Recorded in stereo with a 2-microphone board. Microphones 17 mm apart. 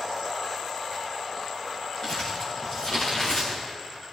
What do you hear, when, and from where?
2.0 s crumpling: 70° left (ahead or behind), 4.5 m